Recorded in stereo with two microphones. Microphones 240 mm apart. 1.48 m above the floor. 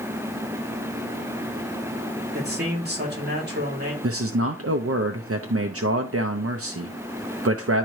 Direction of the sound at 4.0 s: 65° right (ahead or behind).